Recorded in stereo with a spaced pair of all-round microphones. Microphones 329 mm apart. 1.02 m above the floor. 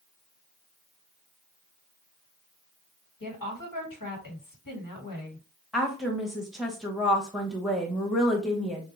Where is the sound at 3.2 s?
80° left, 1.6 m.